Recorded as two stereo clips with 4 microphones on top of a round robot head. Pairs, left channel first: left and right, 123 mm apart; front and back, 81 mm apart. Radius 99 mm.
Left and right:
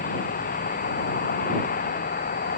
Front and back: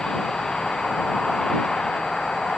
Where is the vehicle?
85° left.